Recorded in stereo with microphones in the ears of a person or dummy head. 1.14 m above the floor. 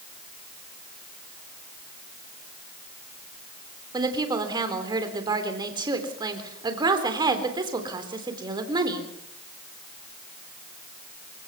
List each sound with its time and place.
3.9 s a woman speaking: 25° right (ahead or behind), 3.5 m